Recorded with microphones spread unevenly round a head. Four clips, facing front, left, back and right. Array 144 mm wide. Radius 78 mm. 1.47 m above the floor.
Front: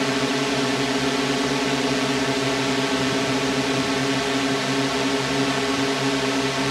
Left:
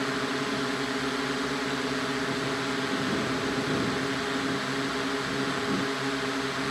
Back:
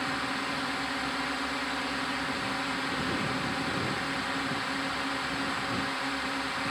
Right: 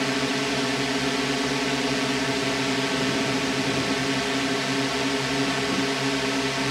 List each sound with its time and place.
0.0 s a drone: 10° right